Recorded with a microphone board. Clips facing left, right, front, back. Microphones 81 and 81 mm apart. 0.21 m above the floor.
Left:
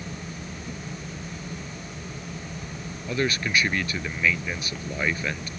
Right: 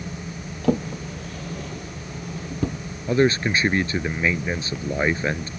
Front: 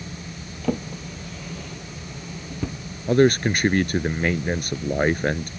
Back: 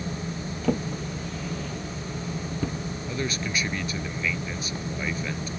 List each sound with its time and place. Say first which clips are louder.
0.6 s a drawer: right 13 dB, even; 90° right
3.1 s a man speaking: right 7 dB, front 15 dB; 30° right